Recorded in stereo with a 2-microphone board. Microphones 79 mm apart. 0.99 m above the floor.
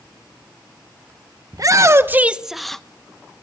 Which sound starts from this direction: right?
A shout, at 1.5 s.